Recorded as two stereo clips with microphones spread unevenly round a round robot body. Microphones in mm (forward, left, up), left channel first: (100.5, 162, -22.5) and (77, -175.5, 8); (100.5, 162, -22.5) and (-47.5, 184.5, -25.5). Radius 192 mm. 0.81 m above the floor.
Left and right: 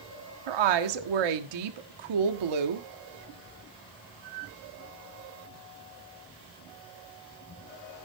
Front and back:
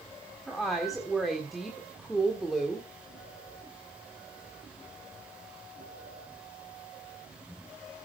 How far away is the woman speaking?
About 1.4 m.